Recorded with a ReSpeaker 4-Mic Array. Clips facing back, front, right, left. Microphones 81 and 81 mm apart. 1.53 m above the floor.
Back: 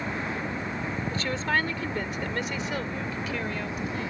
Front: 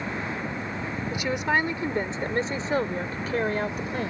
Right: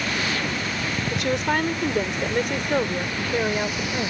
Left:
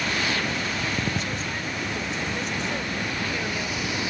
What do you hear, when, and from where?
1.1 s a woman speaking: 75° right; by 4.1 s 40° right